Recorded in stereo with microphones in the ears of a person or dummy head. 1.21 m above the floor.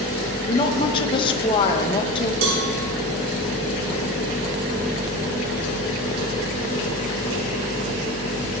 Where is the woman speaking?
25° left (ahead or behind), 1.4 m.